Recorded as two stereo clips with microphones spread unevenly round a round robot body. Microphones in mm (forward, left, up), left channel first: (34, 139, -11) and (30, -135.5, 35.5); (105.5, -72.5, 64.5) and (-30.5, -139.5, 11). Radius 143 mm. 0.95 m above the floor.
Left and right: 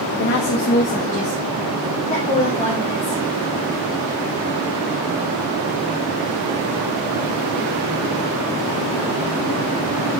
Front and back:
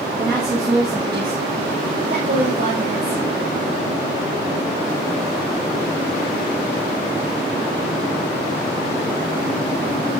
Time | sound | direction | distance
0.2 | a woman speaking | 125° left | 0.8 m